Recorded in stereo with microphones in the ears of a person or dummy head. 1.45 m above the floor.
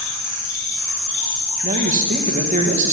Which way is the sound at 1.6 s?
40° right (ahead or behind).